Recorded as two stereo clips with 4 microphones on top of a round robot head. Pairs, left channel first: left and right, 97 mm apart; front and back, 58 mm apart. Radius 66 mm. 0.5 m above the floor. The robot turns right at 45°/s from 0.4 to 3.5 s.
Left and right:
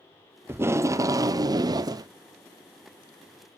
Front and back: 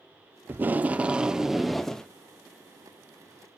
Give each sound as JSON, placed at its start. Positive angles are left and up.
{"t": 0.5, "sound": "tape being pulled", "azimuth_deg": -145, "distance_m": 0.6}